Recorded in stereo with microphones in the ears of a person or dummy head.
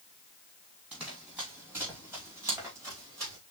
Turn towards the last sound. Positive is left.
turn(degrees=-20)  # may be behind; listen again after turning